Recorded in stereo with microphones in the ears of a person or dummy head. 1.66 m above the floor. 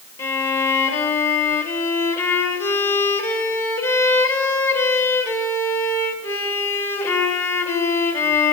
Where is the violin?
15° left (ahead or behind), 2 m.